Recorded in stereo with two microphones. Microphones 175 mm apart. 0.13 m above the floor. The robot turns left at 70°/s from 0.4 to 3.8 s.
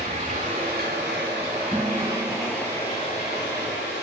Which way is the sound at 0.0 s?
40° right.